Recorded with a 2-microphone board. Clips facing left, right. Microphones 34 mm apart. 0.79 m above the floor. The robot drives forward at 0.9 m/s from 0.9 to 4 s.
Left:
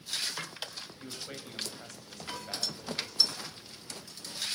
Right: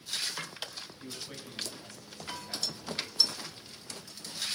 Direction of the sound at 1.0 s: 60° left (ahead or behind).